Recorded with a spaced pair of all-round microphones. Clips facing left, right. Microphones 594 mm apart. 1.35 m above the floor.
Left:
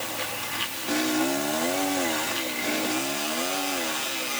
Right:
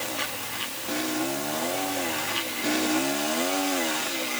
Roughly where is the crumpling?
No crumpling in this recording.